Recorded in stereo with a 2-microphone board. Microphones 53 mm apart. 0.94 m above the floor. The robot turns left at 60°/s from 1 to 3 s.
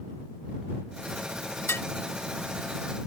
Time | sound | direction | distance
1.7 | dishes clattering | 55° left (ahead or behind) | ?